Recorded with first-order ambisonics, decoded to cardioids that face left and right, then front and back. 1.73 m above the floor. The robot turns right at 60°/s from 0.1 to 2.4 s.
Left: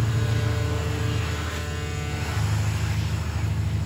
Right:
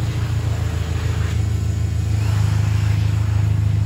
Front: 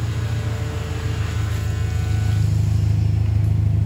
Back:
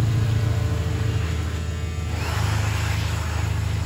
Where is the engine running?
175° right, 0.8 m; by 3.9 s 40° right, 0.8 m.